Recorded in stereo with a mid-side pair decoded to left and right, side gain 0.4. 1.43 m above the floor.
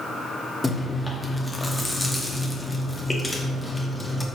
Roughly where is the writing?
I don't hear writing.